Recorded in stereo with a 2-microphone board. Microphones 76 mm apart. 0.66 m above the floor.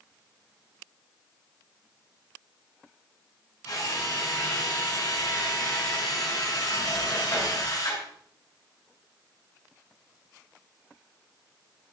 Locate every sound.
3.6 s a drill: 55° left (ahead or behind), 8.5 m